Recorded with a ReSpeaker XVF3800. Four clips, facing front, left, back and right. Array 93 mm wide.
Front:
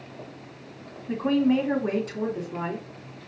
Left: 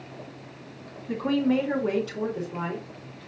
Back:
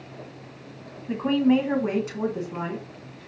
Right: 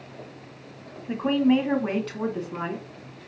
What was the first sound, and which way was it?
A woman speaking, 120° right.